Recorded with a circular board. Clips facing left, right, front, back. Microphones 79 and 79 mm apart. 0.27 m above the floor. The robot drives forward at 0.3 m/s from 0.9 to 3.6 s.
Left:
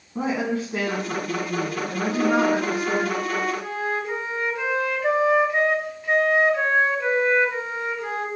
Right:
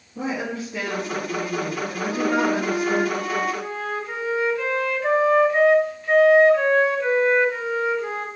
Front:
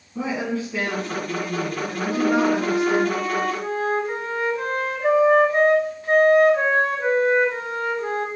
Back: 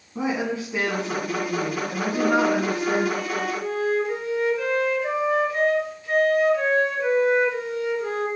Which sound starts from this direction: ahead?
A flute, at 2.1 s.